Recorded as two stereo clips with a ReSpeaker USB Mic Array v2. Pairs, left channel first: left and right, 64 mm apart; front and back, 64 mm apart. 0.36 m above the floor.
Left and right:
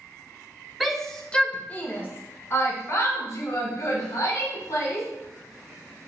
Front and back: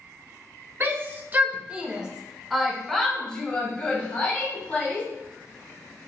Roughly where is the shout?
Behind.